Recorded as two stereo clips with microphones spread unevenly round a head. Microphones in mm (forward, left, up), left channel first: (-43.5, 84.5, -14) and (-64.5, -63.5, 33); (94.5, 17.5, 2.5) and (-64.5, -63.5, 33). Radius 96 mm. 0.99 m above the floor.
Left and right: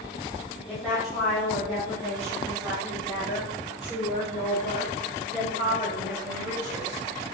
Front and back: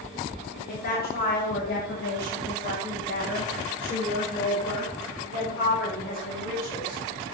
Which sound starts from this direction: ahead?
A woman speaking, at 0.7 s.